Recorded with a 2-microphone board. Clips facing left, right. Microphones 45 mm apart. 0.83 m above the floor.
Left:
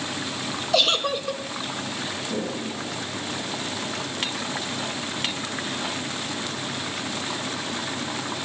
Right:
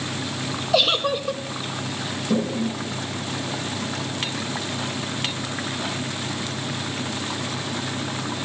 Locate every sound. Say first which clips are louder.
0.7 s a giggle: right 2 dB; 5° right (ahead or behind), 0.8 m
2.3 s a toilet flushing: right 9 dB; 60° right (ahead or behind), 8 m